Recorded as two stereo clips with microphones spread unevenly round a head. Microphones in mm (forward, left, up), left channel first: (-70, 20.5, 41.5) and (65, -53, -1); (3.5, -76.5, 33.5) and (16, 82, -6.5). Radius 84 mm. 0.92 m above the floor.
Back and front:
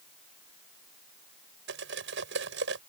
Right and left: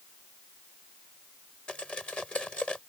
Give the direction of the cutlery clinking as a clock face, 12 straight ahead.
12 o'clock.